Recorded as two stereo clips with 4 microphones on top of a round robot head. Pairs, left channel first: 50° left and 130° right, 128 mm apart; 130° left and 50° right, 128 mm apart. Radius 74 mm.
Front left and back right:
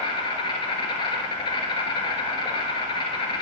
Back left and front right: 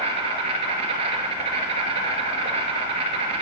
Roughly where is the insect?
Ahead.